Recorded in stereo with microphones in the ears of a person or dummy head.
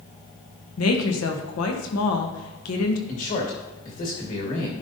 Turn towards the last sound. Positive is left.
turn(degrees=45)  # may be behind; listen again after turning